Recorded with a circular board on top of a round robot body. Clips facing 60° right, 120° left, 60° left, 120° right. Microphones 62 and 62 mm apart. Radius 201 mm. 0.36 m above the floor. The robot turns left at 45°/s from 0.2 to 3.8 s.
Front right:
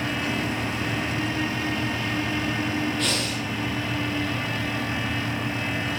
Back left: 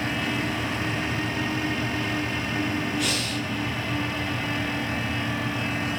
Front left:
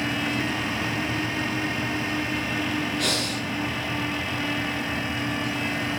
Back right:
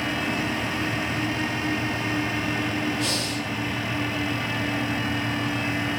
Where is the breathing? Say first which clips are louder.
Front right 1 dB, even; 40° left, 5.5 m; by 3.5 s 15° left, 5.5 m.